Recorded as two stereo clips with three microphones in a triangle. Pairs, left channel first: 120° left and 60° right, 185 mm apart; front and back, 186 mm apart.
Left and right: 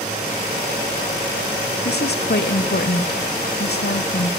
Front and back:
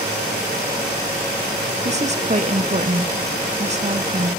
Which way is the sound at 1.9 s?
135° left.